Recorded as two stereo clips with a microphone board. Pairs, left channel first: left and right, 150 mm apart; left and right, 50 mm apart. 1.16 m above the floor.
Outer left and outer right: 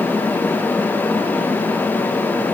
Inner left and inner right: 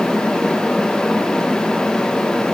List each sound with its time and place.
Only background noise.